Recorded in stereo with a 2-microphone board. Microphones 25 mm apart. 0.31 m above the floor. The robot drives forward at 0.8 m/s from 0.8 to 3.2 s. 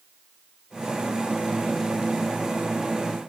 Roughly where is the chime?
I don't hear a chime.